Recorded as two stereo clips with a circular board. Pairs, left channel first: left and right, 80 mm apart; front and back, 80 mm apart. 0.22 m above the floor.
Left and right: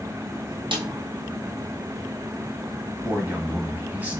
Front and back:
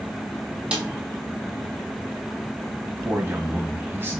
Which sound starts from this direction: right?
A snare drum, at 0.7 s.